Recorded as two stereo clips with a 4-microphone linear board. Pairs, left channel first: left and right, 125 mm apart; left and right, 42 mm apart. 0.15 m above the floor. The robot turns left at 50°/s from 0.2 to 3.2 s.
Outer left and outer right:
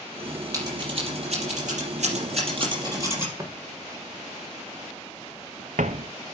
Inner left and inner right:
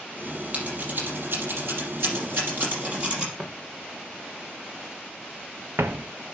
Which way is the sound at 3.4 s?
25° right (ahead or behind).